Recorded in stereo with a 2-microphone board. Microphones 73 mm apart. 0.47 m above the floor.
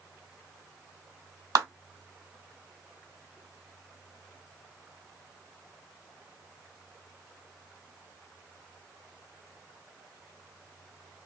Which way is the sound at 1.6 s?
55° right (ahead or behind).